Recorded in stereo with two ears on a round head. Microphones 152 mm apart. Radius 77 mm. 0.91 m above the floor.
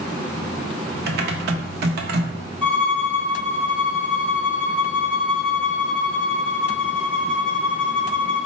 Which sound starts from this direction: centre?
A violin, at 2.6 s.